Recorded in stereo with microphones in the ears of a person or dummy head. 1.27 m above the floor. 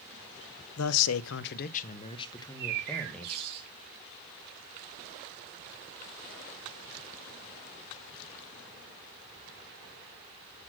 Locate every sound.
0.8 s a man speaking: 75° left (ahead or behind), 0.6 m; by 3.4 s 5° left (ahead or behind), 1.4 m
2.4 s a bird: 55° right (ahead or behind), 1.7 m